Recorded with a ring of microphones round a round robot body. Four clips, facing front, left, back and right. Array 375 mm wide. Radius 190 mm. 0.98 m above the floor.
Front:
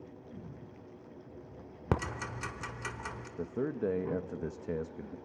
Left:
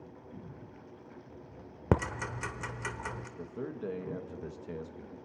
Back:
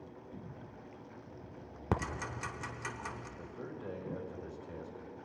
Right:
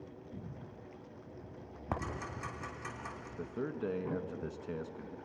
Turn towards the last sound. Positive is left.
turn(degrees=-10)